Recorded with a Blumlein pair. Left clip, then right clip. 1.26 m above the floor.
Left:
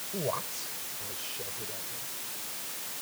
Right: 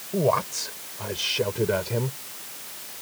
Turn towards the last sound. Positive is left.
turn(degrees=-45)